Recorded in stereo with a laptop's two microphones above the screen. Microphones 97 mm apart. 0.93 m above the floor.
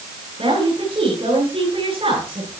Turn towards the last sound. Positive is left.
turn(degrees=-75)  # may be behind; listen again after turning